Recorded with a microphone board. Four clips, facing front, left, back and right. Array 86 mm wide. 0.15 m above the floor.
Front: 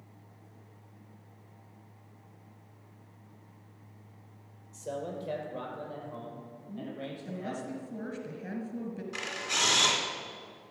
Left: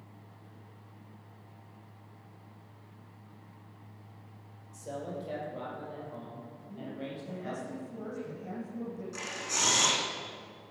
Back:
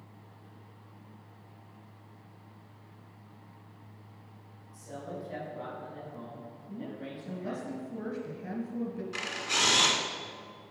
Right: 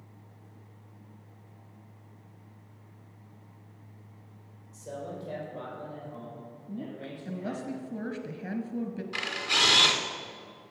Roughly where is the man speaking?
Ahead.